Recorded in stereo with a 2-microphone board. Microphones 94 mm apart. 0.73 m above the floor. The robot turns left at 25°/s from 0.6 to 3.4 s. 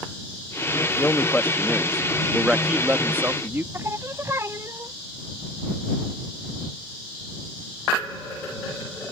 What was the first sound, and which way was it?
A man speaking, 30° left.